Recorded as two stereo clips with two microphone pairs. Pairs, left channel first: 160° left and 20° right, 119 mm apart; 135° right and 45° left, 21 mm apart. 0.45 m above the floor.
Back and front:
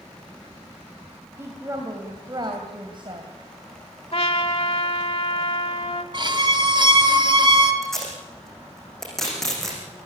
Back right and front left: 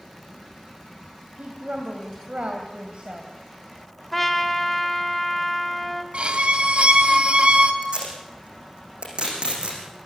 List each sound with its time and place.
1.4 s a woman speaking: 50° left, 3 m; by 3.3 s 15° left, 3 m
4.1 s a trumpet: 145° left, 1.4 m
6.1 s a violin: 25° left, 2 m
7.8 s tape being pulled: 75° left, 7 m